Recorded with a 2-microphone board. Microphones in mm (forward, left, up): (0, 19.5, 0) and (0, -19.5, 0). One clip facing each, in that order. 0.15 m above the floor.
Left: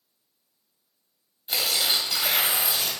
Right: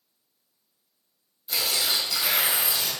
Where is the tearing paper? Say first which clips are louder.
Left 1 dB; 30° left (ahead or behind), 1.8 m.